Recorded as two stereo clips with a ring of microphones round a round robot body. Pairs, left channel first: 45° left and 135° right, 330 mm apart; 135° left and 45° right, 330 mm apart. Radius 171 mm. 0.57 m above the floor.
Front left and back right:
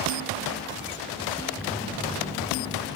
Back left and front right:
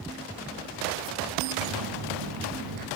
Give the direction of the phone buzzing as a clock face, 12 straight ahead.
2 o'clock.